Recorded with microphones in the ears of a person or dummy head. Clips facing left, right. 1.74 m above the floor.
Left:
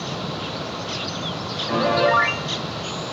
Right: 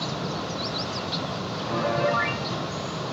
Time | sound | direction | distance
1.7 | a piano | 45° left (ahead or behind) | 1.1 m